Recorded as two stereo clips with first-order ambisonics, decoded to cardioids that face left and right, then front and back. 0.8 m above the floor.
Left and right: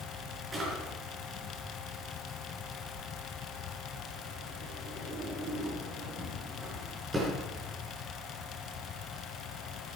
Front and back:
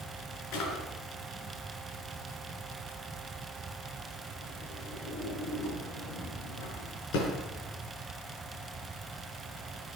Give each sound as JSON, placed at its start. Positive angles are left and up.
{"t": 0.5, "sound": "a drawer", "azimuth_deg": -15, "distance_m": 4.5}